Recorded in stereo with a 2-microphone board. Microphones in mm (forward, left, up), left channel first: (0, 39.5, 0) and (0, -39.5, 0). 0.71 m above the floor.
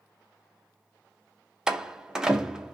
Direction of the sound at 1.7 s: 10° right (ahead or behind).